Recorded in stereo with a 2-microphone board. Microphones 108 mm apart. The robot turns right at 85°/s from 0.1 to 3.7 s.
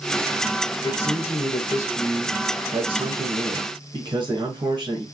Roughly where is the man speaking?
Ahead left.